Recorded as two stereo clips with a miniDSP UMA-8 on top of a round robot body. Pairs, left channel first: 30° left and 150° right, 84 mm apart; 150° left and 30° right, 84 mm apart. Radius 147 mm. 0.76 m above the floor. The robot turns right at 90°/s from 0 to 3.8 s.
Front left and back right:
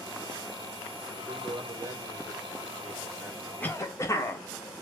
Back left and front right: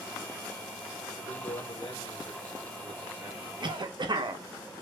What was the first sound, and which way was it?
A man speaking, 85° left.